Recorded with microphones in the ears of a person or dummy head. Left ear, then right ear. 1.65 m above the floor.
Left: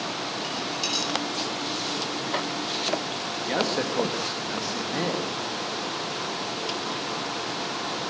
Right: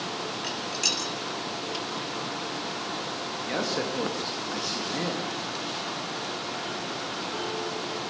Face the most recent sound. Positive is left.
turn(degrees=5)  # may be behind; listen again after turning